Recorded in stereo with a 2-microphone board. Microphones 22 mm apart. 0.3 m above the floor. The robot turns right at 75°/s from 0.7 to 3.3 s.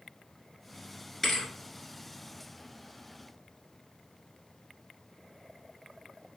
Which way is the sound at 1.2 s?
10° left (ahead or behind).